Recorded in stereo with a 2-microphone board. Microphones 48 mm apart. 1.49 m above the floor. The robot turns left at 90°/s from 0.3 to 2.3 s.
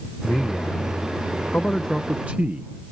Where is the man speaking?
150° left; by 2.9 s 30° right.